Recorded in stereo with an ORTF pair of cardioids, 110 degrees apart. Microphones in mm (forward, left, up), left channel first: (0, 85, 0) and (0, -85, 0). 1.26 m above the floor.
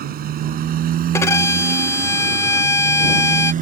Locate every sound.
0.0 s a motorcycle: 60° right; by 3.6 s 50° right
1.1 s a violin: 15° left